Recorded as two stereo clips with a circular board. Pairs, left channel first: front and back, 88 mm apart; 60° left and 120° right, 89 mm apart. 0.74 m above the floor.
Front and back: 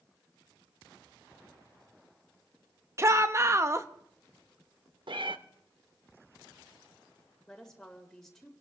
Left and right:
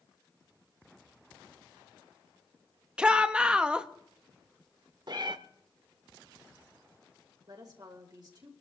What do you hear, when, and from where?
3.0 s a shout: 170° left, 0.8 m
5.1 s a cat meowing: 155° right, 0.8 m
7.5 s a woman speaking: 85° right, 2.5 m